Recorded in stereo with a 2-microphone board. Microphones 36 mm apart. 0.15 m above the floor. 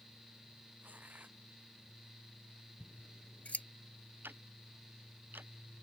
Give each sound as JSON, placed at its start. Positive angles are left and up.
{"t": 0.8, "sound": "tearing paper", "side_deg": -50}
{"t": 2.8, "sound": "scissors", "side_deg": 40}
{"t": 4.2, "sound": "ticking", "side_deg": -75}